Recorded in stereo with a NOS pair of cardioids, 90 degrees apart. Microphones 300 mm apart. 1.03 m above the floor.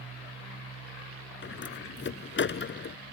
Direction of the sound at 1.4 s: 40° left.